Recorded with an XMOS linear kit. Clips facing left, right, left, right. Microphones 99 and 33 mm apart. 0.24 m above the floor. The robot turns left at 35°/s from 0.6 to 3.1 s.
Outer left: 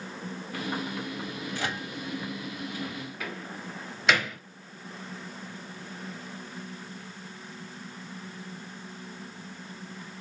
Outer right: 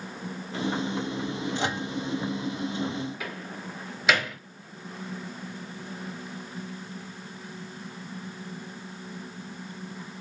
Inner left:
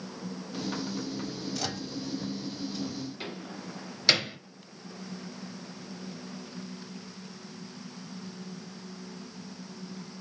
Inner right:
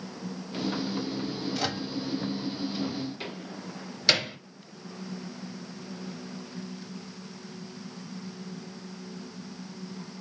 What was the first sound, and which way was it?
A microwave, 25° right (ahead or behind).